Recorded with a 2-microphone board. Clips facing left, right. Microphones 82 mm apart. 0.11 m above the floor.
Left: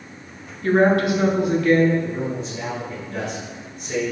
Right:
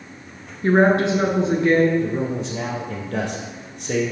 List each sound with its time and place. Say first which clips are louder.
0.6 s a woman speaking: right 1 dB; 25° right (ahead or behind), 1.8 m
2.0 s a man speaking: right 3 dB; 60° right (ahead or behind), 3.5 m